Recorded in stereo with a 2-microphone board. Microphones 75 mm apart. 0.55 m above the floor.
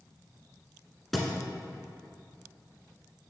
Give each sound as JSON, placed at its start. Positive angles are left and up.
{"t": 1.1, "sound": "a thud", "side_deg": 0, "distance_m": 1.3}